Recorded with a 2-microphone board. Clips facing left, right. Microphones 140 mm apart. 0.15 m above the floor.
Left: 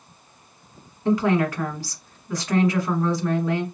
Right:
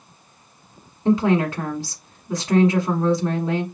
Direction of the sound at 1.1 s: 25° right (ahead or behind).